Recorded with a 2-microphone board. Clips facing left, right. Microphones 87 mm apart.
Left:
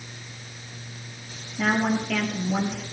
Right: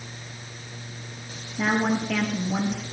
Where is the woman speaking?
10° right (ahead or behind), 5 m.